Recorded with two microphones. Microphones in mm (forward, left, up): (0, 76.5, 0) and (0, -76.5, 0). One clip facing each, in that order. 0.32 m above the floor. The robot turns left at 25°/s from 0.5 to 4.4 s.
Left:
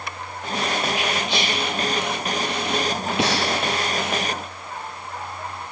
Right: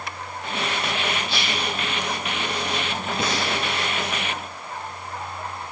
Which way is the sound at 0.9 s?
15° left (ahead or behind).